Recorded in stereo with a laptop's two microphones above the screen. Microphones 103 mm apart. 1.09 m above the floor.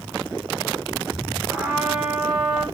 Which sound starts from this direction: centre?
A trumpet, at 1.5 s.